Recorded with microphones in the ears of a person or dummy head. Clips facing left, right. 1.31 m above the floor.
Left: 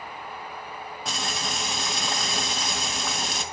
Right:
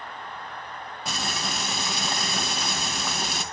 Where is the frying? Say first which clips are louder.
Right 1 dB; centre (ahead or behind), 2 m.